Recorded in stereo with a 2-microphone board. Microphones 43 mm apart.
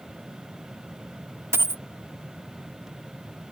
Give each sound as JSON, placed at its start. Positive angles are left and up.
{"t": 1.5, "sound": "a dropped coin", "side_deg": -80}